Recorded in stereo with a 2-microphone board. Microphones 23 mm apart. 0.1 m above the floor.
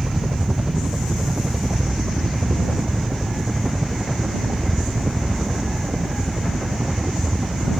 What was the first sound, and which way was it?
A helicopter, 35° right (ahead or behind).